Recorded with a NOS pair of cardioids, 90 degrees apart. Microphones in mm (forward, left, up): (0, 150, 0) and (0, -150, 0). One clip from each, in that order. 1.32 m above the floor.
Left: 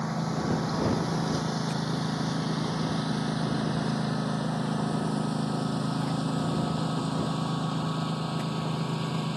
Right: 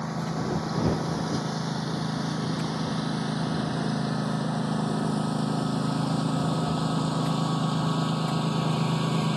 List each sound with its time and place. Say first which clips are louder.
0.0 s a lawn mower: even; 5° left; by 9.4 s 40° right